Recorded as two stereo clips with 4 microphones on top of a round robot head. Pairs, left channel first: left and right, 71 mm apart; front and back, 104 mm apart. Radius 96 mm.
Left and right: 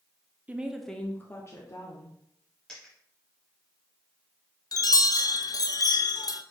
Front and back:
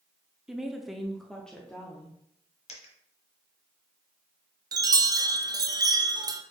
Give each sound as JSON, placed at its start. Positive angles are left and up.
{"t": 0.5, "sound": "a woman speaking", "azimuth_deg": -105, "distance_m": 0.7}
{"t": 2.7, "sound": "a dropped coin", "azimuth_deg": 10, "distance_m": 1.1}
{"t": 4.7, "sound": "a chime", "azimuth_deg": 125, "distance_m": 0.5}